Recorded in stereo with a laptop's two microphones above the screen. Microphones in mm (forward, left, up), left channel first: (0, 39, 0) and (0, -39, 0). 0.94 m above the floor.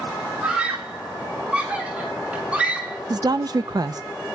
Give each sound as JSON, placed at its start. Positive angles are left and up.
{"t": 0.4, "sound": "a scream", "side_deg": -15, "distance_m": 3.5}
{"t": 3.1, "sound": "a woman speaking", "side_deg": -50, "distance_m": 0.6}